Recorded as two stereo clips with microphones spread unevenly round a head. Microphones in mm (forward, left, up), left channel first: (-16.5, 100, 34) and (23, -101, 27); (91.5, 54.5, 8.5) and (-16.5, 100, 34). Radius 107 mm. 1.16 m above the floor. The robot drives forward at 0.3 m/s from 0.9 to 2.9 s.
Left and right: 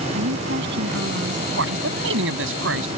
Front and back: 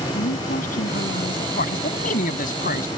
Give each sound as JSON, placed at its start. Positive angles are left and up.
{"t": 0.1, "sound": "a woman speaking", "azimuth_deg": -40}
{"t": 1.6, "sound": "a man speaking", "azimuth_deg": -45}